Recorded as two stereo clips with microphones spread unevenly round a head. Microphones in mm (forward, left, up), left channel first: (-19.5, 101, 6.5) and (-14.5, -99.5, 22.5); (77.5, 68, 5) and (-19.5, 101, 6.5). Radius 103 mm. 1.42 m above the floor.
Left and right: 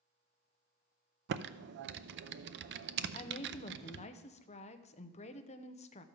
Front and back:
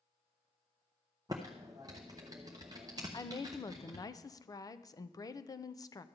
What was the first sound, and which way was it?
Typing on a keyboard, 125° right.